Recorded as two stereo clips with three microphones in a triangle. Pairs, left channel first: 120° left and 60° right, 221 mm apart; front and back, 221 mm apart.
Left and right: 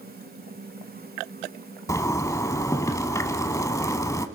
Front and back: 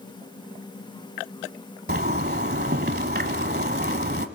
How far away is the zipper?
About 1.0 m.